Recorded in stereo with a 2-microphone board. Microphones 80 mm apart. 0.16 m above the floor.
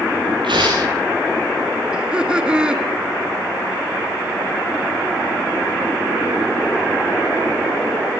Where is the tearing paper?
80° right, 8 m.